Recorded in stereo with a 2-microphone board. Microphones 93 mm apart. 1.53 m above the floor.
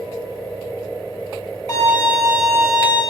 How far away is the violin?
About 1.3 m.